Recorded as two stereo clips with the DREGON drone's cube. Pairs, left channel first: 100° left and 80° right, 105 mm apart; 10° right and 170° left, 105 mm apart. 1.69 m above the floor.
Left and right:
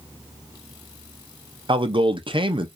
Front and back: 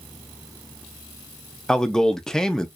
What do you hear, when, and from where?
1.7 s a man speaking: 95° right, 0.6 m